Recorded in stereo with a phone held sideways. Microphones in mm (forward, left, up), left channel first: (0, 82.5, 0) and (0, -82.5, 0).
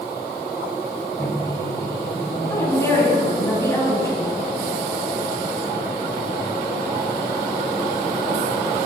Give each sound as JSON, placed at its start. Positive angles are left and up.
{"t": 1.2, "sound": "a microwave", "side_deg": 15, "distance_m": 5.5}
{"t": 2.5, "sound": "a woman speaking", "side_deg": 15, "distance_m": 6.0}